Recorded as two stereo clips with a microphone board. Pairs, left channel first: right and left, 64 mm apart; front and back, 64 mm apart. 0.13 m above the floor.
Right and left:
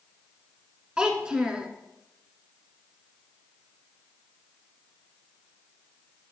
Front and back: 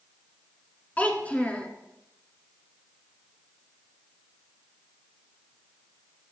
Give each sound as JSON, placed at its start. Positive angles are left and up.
{"t": 1.0, "sound": "a child speaking", "azimuth_deg": 30, "distance_m": 1.3}